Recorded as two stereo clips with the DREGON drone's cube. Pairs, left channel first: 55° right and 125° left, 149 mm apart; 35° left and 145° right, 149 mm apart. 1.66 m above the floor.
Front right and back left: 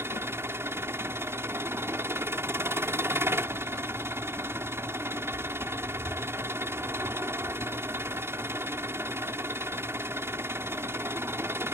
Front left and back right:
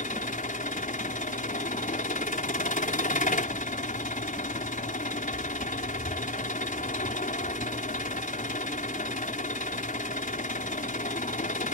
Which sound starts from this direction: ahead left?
An engine running, at 0.0 s.